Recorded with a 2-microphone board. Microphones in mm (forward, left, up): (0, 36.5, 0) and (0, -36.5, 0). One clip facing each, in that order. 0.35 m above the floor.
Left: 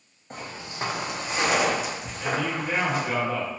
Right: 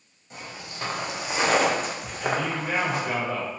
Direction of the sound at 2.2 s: 25° right (ahead or behind).